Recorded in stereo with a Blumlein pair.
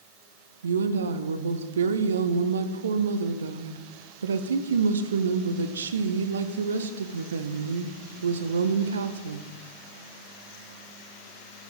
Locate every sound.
0.6 s a woman speaking: 70° right, 0.5 m